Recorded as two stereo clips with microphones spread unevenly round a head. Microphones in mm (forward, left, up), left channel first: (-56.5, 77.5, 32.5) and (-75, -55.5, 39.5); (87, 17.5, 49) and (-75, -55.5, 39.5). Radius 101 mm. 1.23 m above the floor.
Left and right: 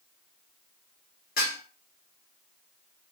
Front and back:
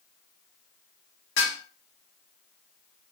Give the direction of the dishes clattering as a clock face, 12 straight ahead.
10 o'clock.